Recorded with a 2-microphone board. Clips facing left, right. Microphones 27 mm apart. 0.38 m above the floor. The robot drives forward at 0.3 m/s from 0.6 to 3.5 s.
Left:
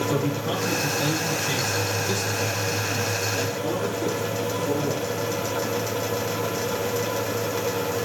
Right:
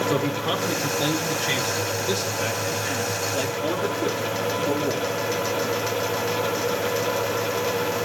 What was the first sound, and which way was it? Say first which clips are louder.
A man speaking: right 2 dB; 40° right (ahead or behind).